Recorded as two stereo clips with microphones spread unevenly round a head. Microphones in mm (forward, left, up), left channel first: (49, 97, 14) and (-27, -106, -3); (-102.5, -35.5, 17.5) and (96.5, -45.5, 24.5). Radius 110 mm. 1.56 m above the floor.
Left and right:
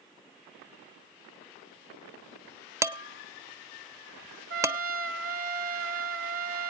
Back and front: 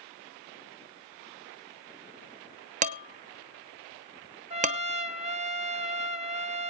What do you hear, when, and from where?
2.8 s dishes clattering: 35° right, 0.6 m
4.5 s a trumpet: 60° right, 1.1 m